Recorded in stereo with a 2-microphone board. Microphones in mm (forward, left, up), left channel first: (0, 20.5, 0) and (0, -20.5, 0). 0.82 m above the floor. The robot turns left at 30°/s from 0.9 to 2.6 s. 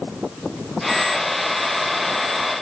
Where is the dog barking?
I don't hear a dog barking.